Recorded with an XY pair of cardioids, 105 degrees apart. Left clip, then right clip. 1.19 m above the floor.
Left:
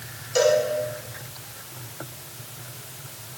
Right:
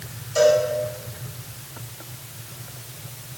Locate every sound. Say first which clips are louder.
0.3 s a cowbell: right 2 dB; 60° left, 4 m